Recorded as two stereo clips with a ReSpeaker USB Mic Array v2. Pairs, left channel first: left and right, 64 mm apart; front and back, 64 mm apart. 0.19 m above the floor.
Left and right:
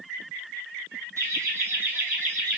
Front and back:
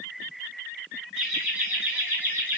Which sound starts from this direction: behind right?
Laughter, at 1.2 s.